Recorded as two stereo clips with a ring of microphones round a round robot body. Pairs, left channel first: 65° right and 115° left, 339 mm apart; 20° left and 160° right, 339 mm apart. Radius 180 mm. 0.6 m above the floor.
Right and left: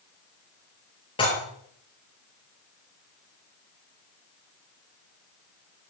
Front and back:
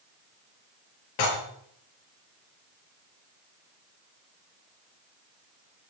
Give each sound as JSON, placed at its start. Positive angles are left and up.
{"t": 1.2, "sound": "dishes clattering", "azimuth_deg": 10, "distance_m": 9.0}